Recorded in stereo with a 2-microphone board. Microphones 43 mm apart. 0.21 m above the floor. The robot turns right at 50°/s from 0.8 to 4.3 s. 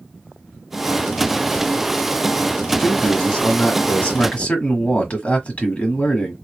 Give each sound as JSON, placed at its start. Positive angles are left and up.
{"t": 2.8, "sound": "a man speaking", "azimuth_deg": 15, "distance_m": 1.5}